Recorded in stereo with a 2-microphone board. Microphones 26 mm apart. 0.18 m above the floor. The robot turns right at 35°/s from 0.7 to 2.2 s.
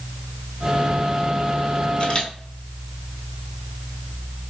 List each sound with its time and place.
2.0 s a camera shutter: 45° left (ahead or behind), 1.1 m; by 2.3 s 40° left (ahead or behind), 1.1 m